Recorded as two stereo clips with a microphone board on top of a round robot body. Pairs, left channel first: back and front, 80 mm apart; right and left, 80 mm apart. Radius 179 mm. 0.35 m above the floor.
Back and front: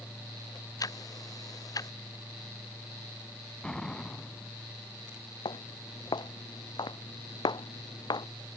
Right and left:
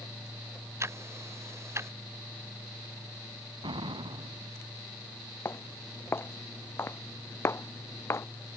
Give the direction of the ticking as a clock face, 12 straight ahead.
7 o'clock.